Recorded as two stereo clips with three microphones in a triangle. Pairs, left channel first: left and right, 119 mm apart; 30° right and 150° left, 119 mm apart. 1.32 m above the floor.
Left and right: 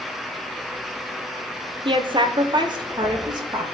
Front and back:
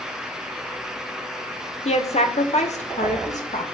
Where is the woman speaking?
50° right, 1.1 m; by 3.8 s 35° right, 2.5 m.